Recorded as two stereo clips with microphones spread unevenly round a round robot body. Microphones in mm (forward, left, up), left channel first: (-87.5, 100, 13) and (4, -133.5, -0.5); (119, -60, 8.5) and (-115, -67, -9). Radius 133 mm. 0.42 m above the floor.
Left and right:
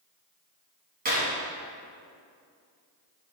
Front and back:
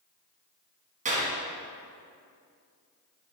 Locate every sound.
1.1 s a clap: 120° right, 2.5 m